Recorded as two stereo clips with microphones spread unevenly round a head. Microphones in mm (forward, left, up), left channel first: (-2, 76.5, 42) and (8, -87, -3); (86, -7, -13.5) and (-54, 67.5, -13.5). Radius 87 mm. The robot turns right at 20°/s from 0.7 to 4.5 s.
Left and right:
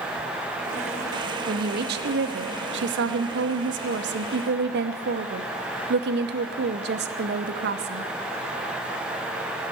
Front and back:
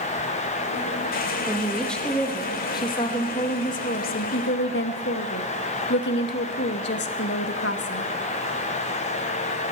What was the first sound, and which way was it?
A woman speaking, 125° right.